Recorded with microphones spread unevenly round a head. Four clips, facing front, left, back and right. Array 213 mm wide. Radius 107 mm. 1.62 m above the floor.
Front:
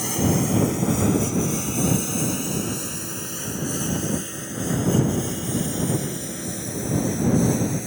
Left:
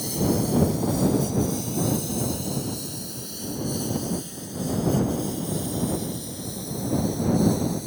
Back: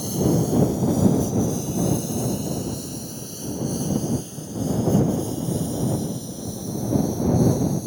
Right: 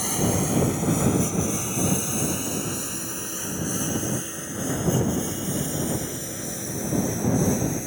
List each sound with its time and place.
0.0 s a lawn mower: 40° right; by 7.9 s 35° right